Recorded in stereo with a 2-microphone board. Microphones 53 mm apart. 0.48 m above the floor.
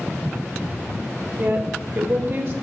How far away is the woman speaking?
About 1.6 m.